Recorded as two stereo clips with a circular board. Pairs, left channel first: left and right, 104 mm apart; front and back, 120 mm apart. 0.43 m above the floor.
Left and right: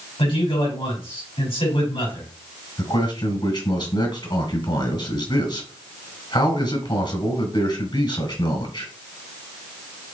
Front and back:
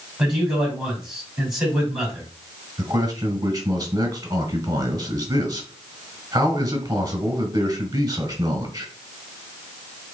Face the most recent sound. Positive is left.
turn(degrees=120)